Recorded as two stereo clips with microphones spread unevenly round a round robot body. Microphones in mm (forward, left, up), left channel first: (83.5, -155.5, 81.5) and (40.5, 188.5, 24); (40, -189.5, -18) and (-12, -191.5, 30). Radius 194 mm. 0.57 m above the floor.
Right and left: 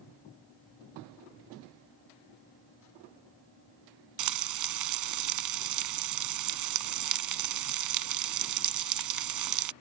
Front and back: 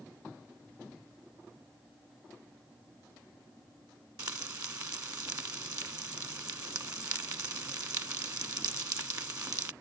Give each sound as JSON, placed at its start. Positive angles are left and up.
{"t": 4.2, "sound": "frying", "azimuth_deg": 140}